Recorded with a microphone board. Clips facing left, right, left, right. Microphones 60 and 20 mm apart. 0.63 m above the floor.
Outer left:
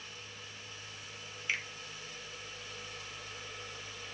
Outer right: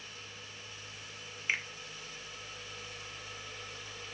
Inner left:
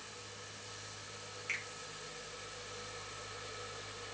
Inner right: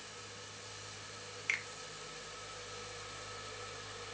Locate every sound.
1.5 s a finger snap: 25° right (ahead or behind), 0.6 m